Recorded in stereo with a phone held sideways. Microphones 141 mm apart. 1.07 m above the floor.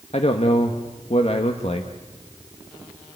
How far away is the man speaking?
About 1.3 m.